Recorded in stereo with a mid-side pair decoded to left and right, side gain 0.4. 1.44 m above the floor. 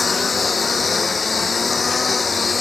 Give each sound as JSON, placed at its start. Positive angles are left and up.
{"t": 0.0, "sound": "a lawn mower", "azimuth_deg": 35}